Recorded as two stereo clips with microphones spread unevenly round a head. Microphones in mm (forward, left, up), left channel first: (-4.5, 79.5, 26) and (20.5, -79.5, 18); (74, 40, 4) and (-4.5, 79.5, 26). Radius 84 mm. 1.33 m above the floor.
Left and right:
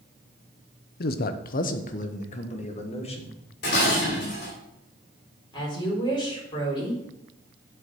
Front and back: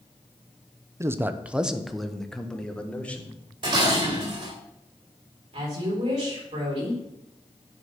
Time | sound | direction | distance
1.0 | a man speaking | 90° left | 0.8 m
3.6 | dishes clattering | 135° left | 3 m
5.5 | a woman speaking | 165° left | 4 m